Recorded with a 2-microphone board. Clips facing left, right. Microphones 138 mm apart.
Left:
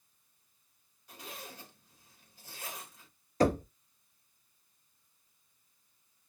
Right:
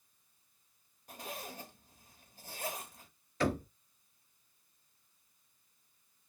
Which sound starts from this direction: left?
Knocking, at 3.4 s.